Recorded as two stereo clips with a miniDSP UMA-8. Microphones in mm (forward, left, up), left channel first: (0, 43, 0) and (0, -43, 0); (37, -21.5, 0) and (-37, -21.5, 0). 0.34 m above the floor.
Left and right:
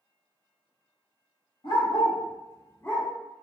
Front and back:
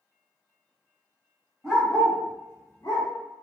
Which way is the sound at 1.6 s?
90° left.